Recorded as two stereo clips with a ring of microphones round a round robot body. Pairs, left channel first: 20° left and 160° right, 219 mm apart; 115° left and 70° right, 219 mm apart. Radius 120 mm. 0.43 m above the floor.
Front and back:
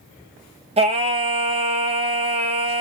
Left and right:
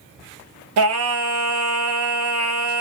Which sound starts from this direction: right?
Singing, at 0.8 s.